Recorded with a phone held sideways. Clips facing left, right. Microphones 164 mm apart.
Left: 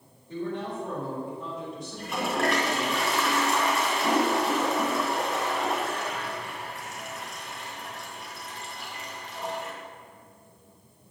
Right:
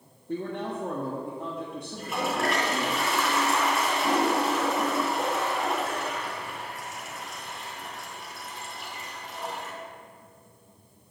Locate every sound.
0.3 s a man speaking: 55° right (ahead or behind), 1.6 m
1.9 s a toilet flushing: centre (ahead or behind), 2 m